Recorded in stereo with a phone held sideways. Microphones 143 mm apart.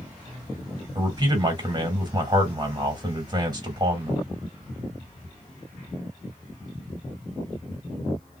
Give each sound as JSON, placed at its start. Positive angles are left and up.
{"t": 0.9, "sound": "a man speaking", "side_deg": -30, "distance_m": 1.9}